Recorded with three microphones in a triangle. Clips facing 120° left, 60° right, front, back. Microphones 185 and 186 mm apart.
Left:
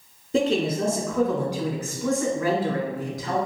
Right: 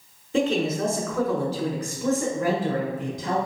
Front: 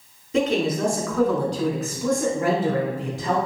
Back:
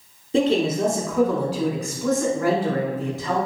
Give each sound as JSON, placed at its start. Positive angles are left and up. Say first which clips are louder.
{"t": 0.3, "sound": "a man speaking", "louder": "left 1 dB, back 2 dB", "azimuth_deg": 145, "distance_m": 1.4}